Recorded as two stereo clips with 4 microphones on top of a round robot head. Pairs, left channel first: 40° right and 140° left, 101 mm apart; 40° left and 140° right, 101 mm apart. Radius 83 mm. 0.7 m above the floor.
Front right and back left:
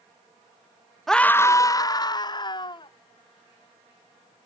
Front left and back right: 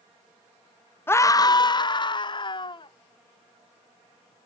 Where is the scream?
45° left; by 2.9 s straight ahead.